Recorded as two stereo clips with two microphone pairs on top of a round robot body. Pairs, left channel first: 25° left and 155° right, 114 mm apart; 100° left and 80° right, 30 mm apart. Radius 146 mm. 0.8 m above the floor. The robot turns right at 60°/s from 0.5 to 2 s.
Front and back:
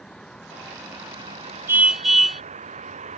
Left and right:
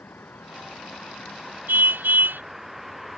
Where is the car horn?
85° right; by 2.4 s 65° right.